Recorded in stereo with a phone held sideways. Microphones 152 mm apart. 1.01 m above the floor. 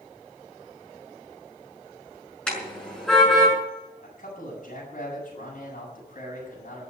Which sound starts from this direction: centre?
A car horn, at 2.5 s.